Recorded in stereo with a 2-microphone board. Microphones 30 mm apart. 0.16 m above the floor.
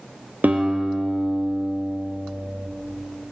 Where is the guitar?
75° right (ahead or behind), 0.6 m.